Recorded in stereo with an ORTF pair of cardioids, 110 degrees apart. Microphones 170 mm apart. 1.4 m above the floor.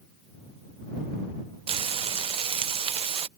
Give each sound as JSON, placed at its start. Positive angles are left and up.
{"t": 1.7, "sound": "frying", "azimuth_deg": -35}